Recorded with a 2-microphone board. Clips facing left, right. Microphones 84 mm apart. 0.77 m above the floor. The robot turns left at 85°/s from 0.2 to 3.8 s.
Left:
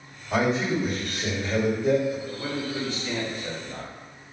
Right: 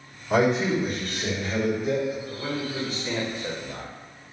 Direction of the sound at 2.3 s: 35° left.